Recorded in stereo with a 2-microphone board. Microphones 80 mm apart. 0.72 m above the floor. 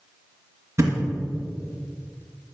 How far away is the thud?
About 2 m.